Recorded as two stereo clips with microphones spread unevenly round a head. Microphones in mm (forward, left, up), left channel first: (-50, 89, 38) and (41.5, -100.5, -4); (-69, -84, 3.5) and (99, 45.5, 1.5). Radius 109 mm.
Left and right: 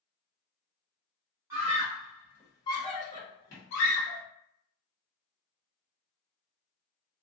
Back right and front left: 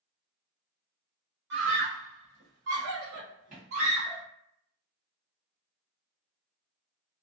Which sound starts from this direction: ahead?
A scream, at 1.5 s.